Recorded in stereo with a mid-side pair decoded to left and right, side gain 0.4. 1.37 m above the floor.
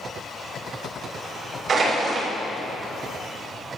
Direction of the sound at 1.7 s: 55° right.